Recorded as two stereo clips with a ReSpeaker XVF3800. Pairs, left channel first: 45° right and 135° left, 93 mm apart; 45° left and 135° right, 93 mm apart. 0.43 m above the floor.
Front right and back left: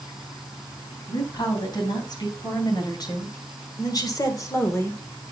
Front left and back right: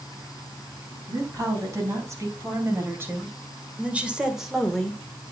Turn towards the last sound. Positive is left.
turn(degrees=-20)